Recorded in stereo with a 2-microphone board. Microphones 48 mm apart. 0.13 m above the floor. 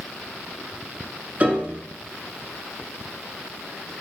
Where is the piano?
30° right (ahead or behind), 0.5 m.